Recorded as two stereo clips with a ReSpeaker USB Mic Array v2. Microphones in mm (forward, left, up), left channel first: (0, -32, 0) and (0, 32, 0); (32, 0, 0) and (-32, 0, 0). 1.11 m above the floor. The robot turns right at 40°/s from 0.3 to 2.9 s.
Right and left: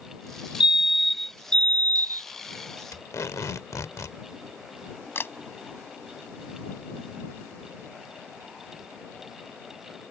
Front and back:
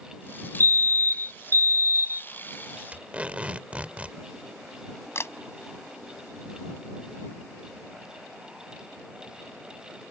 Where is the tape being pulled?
110° right.